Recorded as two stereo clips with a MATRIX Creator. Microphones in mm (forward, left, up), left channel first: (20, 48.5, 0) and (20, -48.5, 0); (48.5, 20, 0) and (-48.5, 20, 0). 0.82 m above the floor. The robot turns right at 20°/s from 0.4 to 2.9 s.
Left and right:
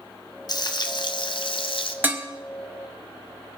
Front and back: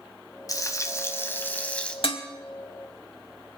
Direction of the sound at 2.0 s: 20° right.